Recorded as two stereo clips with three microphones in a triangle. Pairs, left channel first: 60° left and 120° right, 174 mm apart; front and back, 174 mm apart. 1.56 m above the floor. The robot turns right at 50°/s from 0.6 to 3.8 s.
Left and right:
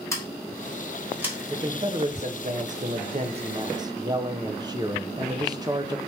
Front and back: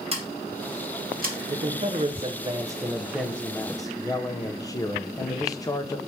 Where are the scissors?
130° left, 1.2 m; by 1.4 s 170° left, 1.2 m.